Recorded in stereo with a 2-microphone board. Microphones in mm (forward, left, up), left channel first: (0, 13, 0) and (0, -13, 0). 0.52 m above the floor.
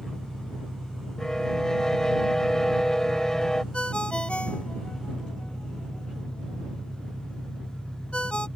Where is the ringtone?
55° left (ahead or behind).